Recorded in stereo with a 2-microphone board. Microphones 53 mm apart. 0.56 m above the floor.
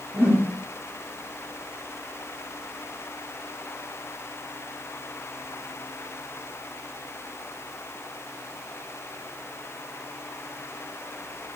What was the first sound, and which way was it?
A whoosh, 35° right (ahead or behind).